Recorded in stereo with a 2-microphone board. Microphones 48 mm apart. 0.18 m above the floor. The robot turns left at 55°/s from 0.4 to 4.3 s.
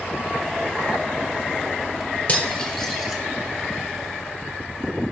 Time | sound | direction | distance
2.3 | cutlery clinking | 30° left (ahead or behind) | 1.8 m